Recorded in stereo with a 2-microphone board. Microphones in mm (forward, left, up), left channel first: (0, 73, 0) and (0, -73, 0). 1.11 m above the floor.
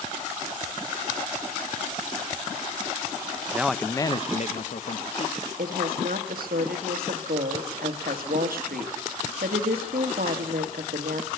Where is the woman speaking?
85° right, 1.6 m.